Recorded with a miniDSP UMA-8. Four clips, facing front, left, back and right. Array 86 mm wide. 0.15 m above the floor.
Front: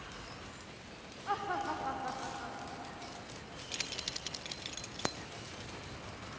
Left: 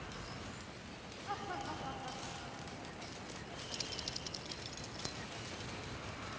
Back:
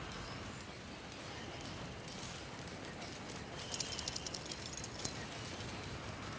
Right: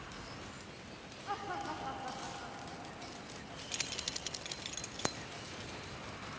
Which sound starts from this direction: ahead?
Laughter, at 1.3 s.